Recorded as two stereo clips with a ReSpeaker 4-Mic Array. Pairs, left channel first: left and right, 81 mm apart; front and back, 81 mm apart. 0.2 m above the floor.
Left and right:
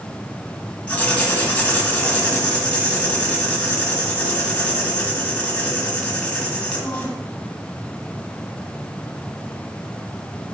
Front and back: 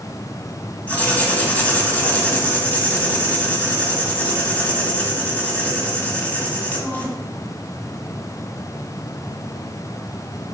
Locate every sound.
0.9 s writing: 40° left, 1.7 m